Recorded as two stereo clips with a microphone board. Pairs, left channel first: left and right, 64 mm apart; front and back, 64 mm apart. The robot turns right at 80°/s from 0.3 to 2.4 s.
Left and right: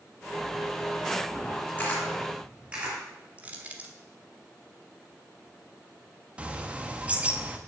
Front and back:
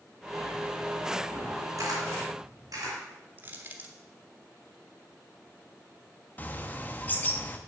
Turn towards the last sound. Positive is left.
turn(degrees=-35)